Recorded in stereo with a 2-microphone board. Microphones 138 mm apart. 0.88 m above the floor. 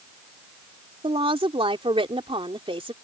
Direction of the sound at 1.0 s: 45° right (ahead or behind).